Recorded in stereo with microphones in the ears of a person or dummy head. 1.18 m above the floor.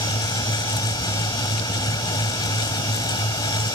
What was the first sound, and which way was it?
A fan, 20° left (ahead or behind).